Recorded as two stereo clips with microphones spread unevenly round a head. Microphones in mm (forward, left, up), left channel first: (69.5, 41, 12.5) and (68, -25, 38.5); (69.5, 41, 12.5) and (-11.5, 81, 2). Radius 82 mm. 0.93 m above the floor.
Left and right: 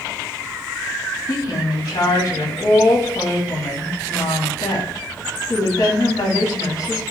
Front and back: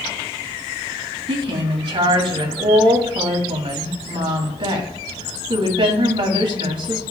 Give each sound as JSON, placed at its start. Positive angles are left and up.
{"t": 1.3, "sound": "a woman speaking", "azimuth_deg": 140, "distance_m": 1.5}